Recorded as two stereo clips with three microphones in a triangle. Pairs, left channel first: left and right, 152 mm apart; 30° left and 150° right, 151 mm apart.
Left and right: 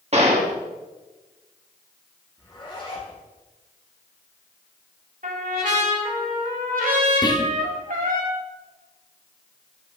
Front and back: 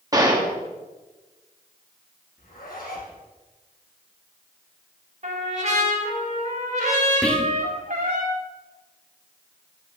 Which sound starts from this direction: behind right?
A trumpet, at 5.2 s.